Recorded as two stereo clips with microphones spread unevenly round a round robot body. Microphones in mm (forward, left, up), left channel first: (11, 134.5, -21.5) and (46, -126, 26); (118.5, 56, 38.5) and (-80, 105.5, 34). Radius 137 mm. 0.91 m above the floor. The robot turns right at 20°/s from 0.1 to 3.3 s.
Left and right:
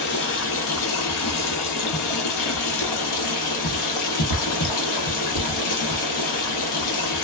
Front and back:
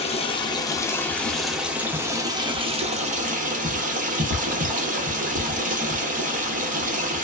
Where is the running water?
50° left, 0.8 m; by 7.2 s 115° left, 0.8 m.